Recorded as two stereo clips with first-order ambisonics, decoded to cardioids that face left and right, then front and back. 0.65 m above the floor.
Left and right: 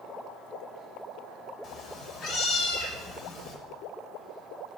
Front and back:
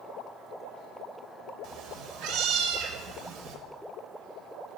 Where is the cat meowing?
150° left, 0.7 m.